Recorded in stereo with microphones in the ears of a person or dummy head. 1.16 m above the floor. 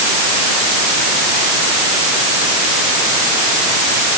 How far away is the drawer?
No drawer in this recording.